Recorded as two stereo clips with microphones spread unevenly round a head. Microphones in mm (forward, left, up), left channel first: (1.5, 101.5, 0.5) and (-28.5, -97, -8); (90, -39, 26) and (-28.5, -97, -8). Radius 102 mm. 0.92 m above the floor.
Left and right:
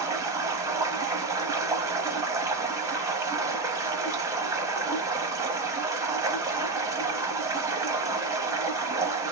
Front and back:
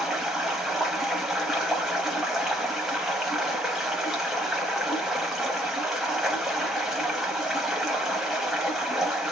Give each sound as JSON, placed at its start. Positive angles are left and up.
{"t": 0.0, "sound": "running water", "azimuth_deg": -35, "distance_m": 0.8}